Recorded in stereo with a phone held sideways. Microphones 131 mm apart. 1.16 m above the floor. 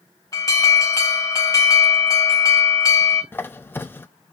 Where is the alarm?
30° left (ahead or behind), 2 m.